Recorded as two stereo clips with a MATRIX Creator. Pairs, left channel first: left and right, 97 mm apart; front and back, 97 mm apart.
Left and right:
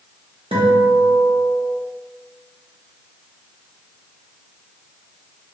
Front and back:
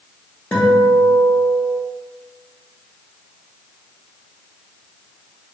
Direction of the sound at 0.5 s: 75° right.